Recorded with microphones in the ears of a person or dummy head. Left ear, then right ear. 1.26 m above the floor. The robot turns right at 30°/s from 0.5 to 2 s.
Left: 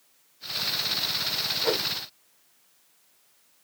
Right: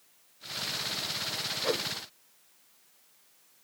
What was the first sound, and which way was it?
A whoosh, 20° left (ahead or behind).